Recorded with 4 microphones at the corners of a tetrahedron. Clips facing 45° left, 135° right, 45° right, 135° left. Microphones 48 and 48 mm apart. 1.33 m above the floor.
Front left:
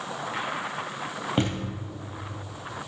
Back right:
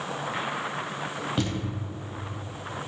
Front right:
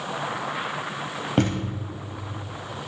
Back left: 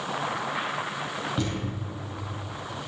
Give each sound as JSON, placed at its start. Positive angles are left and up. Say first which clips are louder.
{"t": 1.4, "sound": "a thud", "louder": "front left 4 dB, front right 11 dB", "azimuth_deg": -10, "distance_m": 3.0}